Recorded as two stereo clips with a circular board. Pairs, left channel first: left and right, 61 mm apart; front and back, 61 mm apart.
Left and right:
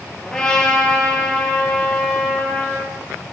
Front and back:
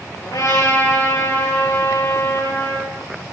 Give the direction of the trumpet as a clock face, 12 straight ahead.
12 o'clock.